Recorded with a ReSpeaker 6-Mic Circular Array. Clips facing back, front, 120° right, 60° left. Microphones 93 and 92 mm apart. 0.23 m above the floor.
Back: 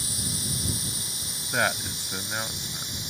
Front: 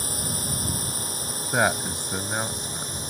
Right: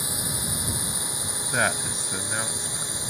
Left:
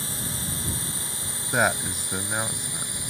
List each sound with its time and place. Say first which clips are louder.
0.0 s a drone: front 4 dB, right 1 dB; 45° right; by 3.1 s 50° right
1.5 s a man speaking: front 3 dB, left 2 dB; 15° left